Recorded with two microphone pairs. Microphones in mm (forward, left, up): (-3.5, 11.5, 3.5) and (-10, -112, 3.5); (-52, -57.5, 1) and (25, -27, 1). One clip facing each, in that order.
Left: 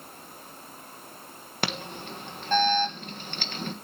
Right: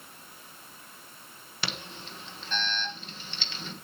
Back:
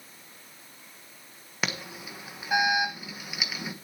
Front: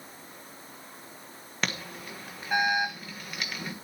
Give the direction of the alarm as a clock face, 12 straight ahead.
8 o'clock.